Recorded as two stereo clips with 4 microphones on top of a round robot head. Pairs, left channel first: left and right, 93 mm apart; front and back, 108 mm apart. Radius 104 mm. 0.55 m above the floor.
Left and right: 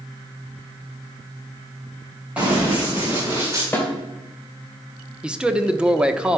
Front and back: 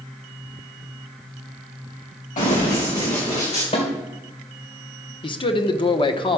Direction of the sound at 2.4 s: 15° right.